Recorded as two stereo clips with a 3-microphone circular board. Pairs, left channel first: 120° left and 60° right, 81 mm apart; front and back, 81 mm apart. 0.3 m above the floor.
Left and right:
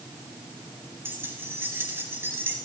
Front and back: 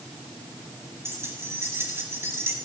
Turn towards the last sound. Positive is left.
turn(degrees=-120)